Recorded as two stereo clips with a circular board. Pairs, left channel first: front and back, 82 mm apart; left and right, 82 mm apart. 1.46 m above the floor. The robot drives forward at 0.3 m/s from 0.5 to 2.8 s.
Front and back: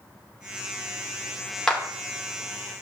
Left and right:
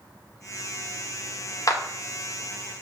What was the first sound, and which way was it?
A clap, 80° left.